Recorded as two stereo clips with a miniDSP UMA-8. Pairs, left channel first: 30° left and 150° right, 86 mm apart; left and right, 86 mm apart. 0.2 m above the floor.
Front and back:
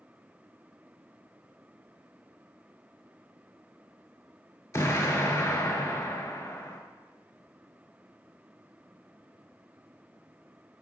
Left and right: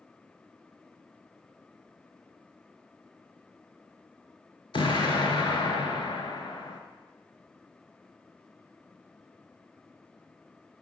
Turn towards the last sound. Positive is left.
turn(degrees=85)